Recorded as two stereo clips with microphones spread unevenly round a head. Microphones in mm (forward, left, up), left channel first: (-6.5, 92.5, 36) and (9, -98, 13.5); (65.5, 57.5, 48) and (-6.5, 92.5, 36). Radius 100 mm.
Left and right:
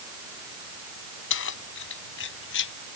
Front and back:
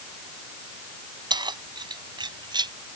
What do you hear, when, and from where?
1.3 s keys jangling: 125° left